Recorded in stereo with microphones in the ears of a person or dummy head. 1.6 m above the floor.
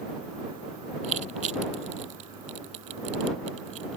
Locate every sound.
1.0 s crushing: 40° right (ahead or behind)